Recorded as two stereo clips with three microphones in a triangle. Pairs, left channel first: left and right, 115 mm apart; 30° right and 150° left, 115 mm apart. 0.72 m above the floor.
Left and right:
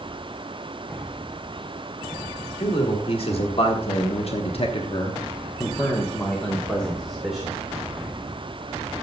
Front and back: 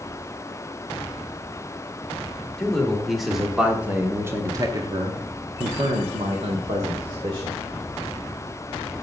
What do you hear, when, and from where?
2.6 s a man speaking: 55° left, 2 m; by 7.7 s 175° right, 2.5 m